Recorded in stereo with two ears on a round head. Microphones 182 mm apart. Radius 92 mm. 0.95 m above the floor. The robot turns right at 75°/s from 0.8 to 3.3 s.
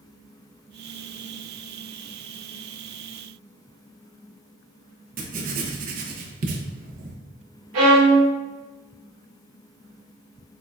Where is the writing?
40° right (ahead or behind), 0.6 m.